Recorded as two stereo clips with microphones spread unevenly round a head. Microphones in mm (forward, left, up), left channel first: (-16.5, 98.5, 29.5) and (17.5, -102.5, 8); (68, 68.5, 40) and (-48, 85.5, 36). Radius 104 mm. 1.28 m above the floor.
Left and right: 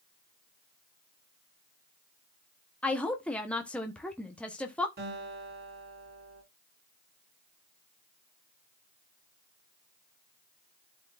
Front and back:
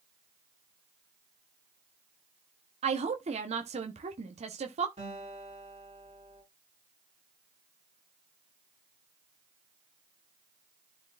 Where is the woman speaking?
175° right, 1.1 m.